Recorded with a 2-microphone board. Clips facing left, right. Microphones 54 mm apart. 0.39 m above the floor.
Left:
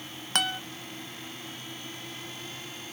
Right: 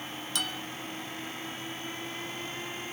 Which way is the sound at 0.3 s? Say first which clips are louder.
Left 7 dB; 60° left (ahead or behind).